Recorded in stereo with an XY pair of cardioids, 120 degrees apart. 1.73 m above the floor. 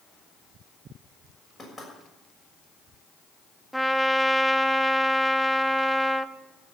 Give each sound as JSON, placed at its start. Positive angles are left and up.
{"t": 1.6, "sound": "knocking", "azimuth_deg": 10, "distance_m": 6.5}
{"t": 3.7, "sound": "a trumpet", "azimuth_deg": 0, "distance_m": 0.5}